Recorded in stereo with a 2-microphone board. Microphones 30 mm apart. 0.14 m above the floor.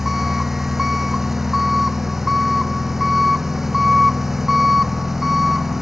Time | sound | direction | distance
0.0 | an engine running | 10° right (ahead or behind) | ?